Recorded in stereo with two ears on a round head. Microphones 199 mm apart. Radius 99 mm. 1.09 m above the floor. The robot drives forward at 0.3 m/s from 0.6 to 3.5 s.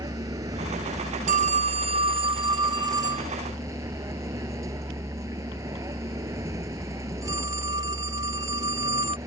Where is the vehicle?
15° right (ahead or behind).